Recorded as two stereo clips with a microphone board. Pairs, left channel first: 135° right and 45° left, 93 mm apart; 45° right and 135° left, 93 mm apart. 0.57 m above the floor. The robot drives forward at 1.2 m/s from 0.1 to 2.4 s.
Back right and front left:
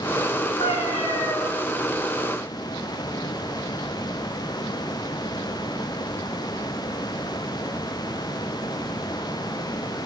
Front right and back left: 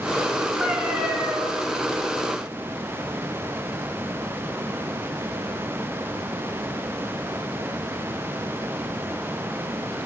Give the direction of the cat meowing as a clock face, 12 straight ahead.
5 o'clock.